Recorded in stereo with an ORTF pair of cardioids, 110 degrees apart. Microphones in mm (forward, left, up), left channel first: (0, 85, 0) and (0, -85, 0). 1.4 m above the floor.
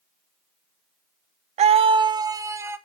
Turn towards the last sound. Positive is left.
turn(degrees=-15)